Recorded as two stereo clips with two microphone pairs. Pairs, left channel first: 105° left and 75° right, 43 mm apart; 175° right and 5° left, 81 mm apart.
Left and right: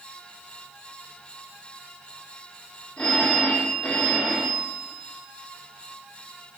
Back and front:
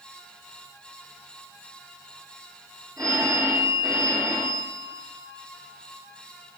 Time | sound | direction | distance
3.0 | a phone ringing | 40° left | 5.5 m